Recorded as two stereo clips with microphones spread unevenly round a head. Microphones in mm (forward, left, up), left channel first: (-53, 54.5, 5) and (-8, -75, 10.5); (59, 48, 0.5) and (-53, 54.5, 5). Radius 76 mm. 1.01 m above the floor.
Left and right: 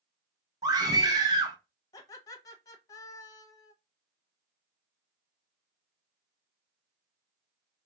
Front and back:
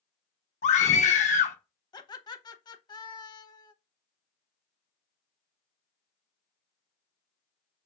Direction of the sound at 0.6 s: 5° right.